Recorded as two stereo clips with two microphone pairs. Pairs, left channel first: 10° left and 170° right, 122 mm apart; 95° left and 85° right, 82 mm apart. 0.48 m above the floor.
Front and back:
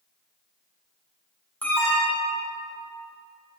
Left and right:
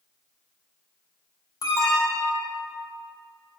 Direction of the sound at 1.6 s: 80° left.